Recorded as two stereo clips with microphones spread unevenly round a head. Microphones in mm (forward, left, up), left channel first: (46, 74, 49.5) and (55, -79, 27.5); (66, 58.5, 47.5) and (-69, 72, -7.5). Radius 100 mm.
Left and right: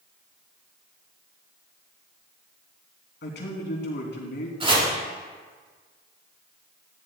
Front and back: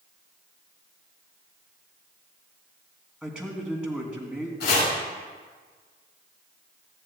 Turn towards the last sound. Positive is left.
turn(degrees=-30)